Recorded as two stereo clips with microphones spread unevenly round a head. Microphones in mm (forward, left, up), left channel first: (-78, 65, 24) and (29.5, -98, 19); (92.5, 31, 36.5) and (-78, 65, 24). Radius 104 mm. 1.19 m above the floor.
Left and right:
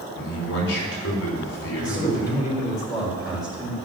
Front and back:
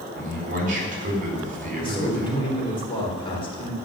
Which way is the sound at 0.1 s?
130° left.